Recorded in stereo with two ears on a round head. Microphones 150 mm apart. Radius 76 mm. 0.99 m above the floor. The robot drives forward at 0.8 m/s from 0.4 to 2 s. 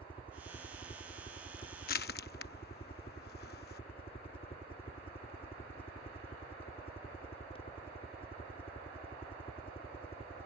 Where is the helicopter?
30° left (ahead or behind); by 10.5 s 35° left (ahead or behind).